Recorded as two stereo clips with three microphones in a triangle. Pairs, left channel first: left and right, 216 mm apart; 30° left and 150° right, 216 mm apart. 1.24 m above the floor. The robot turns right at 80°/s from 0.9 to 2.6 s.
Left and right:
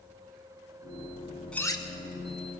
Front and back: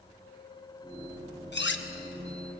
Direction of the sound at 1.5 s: 5° left.